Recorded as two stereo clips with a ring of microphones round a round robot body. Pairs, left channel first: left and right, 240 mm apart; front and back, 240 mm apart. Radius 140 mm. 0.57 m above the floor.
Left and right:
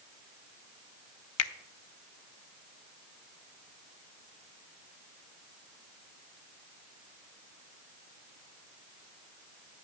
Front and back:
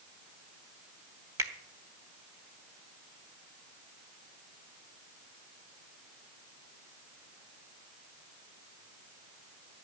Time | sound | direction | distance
1.4 | a finger snap | 100° left | 1.2 m